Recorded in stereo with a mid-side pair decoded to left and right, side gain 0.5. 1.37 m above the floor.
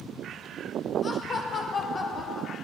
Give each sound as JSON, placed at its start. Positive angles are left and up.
{"t": 1.0, "sound": "laughter", "azimuth_deg": 40, "distance_m": 2.0}